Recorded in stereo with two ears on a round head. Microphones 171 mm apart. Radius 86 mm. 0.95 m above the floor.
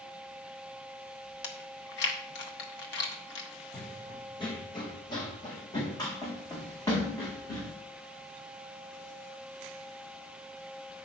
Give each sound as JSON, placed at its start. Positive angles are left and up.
{"t": 1.4, "sound": "chewing", "side_deg": 60, "distance_m": 1.5}
{"t": 3.7, "sound": "running footsteps", "side_deg": 30, "distance_m": 1.9}